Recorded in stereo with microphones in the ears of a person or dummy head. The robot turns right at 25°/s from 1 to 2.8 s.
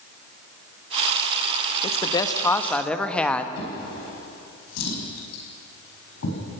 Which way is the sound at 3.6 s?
85° left.